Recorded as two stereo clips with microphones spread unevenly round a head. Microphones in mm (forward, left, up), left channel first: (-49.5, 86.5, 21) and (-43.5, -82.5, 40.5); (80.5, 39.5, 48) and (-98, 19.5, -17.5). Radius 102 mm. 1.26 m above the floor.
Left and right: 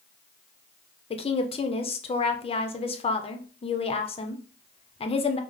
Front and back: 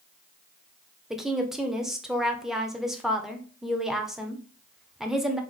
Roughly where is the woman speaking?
Behind left.